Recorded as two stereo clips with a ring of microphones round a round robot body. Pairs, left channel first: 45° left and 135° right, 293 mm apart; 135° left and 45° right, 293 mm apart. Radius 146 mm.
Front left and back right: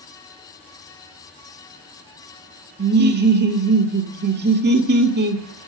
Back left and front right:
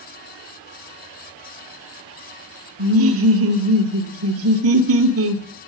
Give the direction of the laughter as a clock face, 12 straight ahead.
3 o'clock.